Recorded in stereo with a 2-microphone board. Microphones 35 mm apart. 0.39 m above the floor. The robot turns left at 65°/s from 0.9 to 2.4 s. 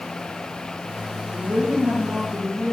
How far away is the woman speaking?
About 4.5 m.